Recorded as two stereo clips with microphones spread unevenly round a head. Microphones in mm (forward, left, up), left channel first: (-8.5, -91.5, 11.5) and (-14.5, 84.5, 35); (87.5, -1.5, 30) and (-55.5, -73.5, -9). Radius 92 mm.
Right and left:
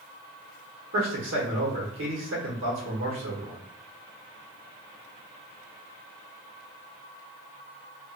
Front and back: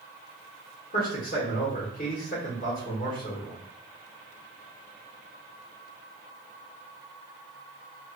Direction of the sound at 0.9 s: 75° left.